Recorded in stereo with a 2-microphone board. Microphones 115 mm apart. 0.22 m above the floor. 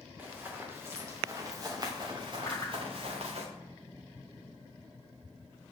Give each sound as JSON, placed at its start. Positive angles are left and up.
{"t": 0.2, "sound": "running footsteps", "side_deg": -15, "distance_m": 3.0}
{"t": 2.5, "sound": "a whoosh", "side_deg": 25, "distance_m": 1.5}